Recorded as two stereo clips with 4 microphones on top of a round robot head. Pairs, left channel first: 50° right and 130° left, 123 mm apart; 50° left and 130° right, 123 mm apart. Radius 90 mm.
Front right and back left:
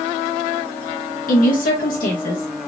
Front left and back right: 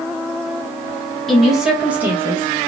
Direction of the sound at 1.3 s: 40° right.